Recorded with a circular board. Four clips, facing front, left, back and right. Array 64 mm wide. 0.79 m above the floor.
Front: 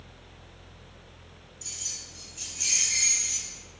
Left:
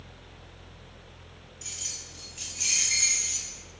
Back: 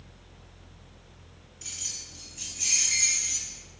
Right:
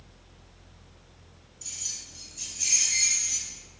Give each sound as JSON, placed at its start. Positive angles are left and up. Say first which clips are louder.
{"t": 1.6, "sound": "keys jangling", "louder": "left 2 dB, back 2 dB", "azimuth_deg": 140, "distance_m": 0.6}